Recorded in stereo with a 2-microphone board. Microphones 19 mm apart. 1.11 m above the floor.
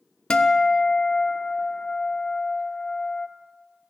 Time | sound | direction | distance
0.3 | a guitar | 65° left (ahead or behind) | 0.8 m